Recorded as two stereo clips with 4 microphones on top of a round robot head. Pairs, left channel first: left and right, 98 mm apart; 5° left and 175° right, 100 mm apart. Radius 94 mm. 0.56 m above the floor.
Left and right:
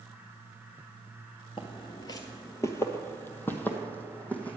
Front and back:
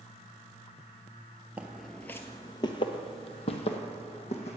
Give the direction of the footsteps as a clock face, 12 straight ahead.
8 o'clock.